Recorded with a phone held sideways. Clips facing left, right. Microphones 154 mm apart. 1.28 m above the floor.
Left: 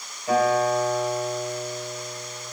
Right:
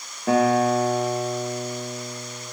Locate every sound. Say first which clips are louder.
0.3 s a guitar: right 2 dB; 60° right (ahead or behind), 1.5 m